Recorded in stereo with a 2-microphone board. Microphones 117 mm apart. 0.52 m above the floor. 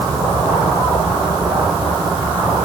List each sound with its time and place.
Only background noise.